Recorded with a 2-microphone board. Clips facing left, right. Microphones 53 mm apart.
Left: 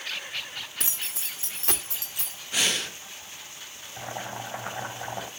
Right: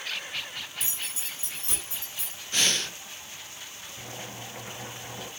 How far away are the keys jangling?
About 1.0 m.